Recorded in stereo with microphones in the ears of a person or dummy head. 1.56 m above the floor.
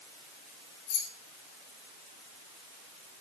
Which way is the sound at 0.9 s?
55° left (ahead or behind).